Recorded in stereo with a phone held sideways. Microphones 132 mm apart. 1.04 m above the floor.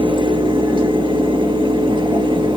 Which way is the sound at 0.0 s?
40° right (ahead or behind).